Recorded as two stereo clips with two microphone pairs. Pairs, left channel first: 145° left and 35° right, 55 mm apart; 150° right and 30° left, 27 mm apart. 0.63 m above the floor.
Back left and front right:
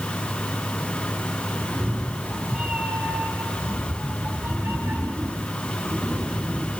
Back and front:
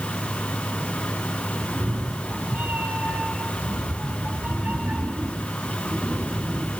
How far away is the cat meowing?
About 3 m.